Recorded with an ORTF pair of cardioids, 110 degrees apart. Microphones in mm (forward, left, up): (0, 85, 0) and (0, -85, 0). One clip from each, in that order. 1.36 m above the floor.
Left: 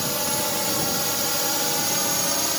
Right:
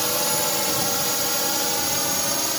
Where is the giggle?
I don't hear a giggle.